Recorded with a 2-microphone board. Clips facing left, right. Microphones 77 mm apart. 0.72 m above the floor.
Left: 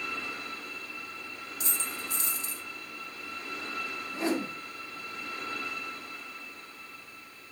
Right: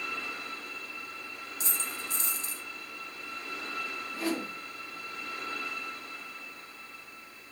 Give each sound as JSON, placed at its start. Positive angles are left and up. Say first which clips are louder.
{"t": 1.6, "sound": "a dropped coin", "louder": "left 1 dB", "side_deg": -35, "distance_m": 1.2}
{"t": 4.1, "sound": "a whoosh", "louder": "left 3 dB", "side_deg": 25, "distance_m": 0.6}